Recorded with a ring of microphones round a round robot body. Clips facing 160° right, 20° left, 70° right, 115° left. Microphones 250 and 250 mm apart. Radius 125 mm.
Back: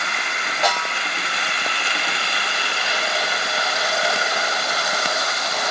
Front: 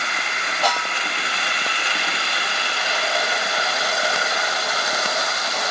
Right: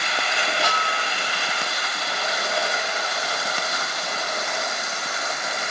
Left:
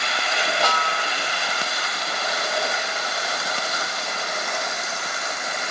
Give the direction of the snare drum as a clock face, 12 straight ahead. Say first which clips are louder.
Back 1 dB, left 2 dB; 8 o'clock.